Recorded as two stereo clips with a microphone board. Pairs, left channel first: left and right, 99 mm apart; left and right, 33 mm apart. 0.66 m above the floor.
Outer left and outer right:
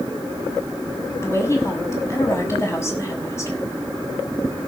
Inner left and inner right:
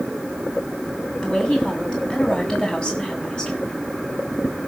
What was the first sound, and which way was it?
A woman speaking, 25° left (ahead or behind).